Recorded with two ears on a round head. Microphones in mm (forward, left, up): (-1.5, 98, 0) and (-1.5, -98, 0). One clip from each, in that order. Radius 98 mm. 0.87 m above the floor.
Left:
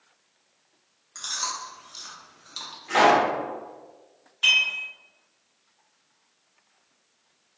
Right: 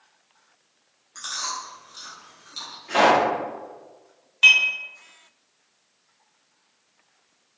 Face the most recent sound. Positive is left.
turn(degrees=-30)  # may be behind; listen again after turning